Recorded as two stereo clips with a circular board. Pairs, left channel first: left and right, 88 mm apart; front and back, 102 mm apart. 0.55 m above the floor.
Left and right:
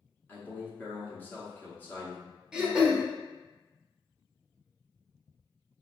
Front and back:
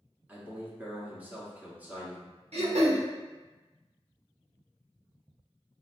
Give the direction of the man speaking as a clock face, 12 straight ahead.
8 o'clock.